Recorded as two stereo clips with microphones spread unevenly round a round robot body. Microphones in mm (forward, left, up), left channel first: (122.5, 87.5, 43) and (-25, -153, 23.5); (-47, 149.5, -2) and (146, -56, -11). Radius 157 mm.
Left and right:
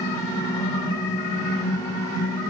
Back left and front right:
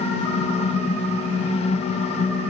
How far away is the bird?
I don't hear a bird.